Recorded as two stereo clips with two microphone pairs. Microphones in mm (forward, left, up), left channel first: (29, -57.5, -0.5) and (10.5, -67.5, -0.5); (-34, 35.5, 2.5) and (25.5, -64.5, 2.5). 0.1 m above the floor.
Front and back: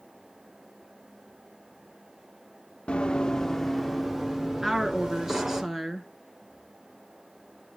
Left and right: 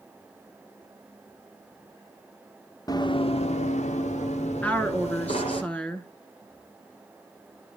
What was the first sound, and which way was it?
Running footsteps, 65° left.